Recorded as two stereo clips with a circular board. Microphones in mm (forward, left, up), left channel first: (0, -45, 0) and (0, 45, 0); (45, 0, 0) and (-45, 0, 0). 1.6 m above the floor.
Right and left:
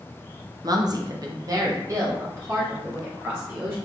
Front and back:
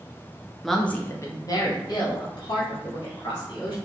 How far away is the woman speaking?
About 0.6 m.